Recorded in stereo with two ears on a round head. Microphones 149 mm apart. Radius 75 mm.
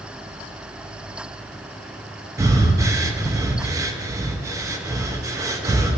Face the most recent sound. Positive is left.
turn(degrees=-20)  # may be behind; listen again after turning